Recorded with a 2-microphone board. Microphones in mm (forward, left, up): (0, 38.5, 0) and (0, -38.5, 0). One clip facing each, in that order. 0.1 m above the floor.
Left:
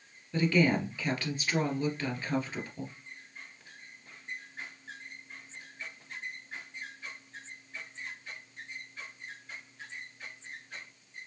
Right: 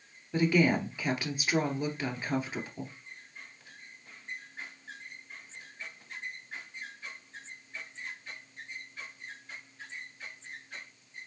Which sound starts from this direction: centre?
A woman speaking, at 0.3 s.